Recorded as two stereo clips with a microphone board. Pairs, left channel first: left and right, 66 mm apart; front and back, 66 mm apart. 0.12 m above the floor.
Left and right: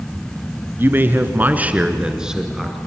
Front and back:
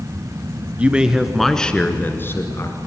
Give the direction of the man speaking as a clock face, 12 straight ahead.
4 o'clock.